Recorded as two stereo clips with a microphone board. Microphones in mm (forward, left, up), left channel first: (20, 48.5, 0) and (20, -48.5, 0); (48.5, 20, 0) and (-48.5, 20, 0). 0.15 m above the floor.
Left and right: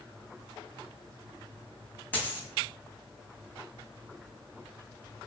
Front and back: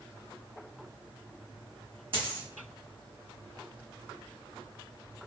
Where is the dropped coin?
160° left, 0.7 m.